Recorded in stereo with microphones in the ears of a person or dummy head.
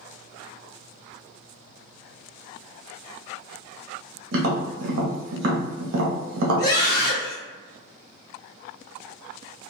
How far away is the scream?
About 1.5 m.